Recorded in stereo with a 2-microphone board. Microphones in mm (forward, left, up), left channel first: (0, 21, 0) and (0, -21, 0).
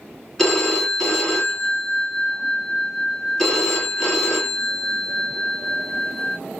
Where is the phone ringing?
10° left (ahead or behind), 1.4 m.